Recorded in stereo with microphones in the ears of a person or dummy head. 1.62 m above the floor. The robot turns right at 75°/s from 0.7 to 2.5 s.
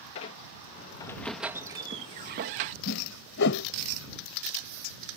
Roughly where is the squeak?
Behind left.